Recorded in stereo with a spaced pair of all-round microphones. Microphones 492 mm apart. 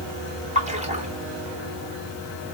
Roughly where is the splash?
Centre.